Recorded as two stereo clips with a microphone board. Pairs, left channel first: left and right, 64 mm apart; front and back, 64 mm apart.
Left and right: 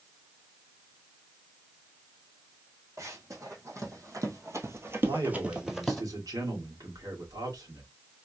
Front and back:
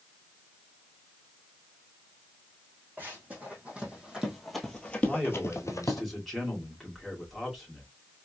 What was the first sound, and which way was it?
Running footsteps, 120° right.